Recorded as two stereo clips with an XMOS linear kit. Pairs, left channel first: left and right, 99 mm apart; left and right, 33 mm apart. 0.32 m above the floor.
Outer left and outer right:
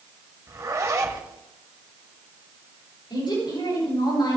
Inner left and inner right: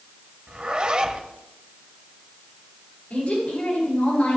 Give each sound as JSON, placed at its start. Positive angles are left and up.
{"t": 0.5, "sound": "a zipper", "side_deg": -35, "distance_m": 1.4}
{"t": 3.1, "sound": "a woman speaking", "side_deg": 50, "distance_m": 6.5}